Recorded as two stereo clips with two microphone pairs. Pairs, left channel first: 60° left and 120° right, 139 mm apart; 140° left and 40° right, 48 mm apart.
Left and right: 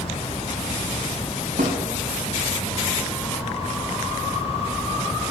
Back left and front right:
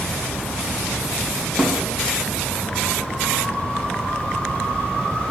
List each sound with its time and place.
1.6 s a snare drum: 120° right, 1.7 m